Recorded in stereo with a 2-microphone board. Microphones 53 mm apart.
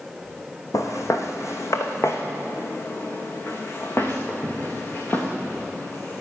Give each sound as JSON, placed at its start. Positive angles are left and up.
{"t": 0.7, "sound": "footsteps", "side_deg": 75, "distance_m": 1.7}